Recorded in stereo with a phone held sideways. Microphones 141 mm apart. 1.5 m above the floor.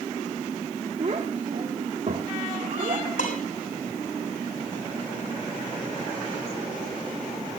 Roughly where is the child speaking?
Right.